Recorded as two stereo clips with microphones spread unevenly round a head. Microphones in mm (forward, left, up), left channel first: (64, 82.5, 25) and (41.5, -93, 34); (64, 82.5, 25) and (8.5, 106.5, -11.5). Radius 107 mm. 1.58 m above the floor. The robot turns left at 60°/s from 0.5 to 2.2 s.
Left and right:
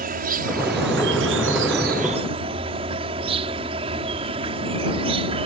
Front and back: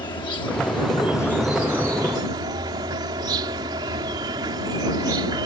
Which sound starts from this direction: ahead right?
An insect, at 0.0 s.